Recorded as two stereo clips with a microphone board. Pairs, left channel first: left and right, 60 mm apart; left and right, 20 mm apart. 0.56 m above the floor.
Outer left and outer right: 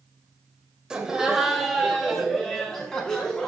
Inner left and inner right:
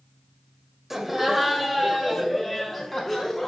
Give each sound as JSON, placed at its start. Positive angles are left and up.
{"t": 0.9, "sound": "laughter", "side_deg": -15, "distance_m": 3.0}